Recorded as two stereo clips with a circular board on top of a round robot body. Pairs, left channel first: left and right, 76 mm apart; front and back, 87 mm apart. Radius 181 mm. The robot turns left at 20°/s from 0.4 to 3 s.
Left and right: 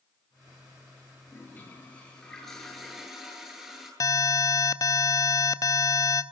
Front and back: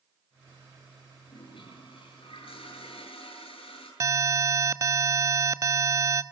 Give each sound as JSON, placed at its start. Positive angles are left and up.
{"t": 1.3, "sound": "a toilet flushing", "azimuth_deg": 30, "distance_m": 10.0}
{"t": 4.0, "sound": "an alarm", "azimuth_deg": 130, "distance_m": 1.1}